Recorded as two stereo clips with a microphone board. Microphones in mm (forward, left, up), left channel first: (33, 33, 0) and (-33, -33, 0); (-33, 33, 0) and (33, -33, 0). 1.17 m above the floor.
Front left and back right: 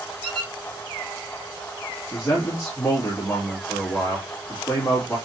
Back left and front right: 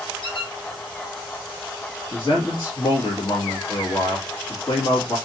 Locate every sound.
0.2 s a squeak: 125° left, 2.5 m
2.1 s a man speaking: 110° left, 1.7 m